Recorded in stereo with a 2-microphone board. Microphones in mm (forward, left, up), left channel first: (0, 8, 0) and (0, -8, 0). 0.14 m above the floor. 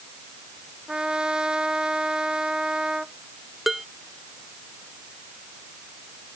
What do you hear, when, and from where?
0.9 s a trumpet: 65° right (ahead or behind)
3.7 s dishes clattering: 10° right (ahead or behind)